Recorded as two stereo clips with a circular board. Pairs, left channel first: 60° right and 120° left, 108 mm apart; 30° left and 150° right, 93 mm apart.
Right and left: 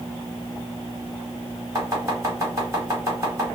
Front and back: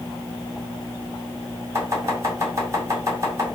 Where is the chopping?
170° left, 1.6 m.